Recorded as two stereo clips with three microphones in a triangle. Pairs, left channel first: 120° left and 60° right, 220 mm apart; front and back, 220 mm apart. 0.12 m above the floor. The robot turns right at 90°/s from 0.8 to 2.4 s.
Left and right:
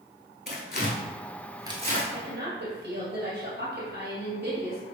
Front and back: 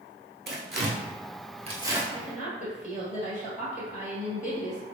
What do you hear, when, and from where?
0.5 s tearing paper: 155° left, 0.7 m; by 2.0 s 95° right, 0.7 m
2.1 s a woman speaking: 70° right, 1.9 m; by 4.8 s 45° right, 1.9 m